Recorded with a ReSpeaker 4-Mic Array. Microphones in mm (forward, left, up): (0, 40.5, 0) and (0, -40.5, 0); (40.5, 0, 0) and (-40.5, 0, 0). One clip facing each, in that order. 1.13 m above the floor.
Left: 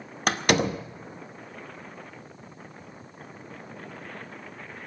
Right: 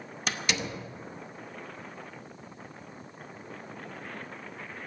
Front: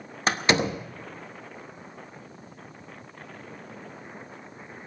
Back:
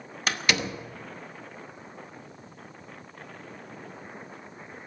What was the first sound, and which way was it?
A door slam, 60° left.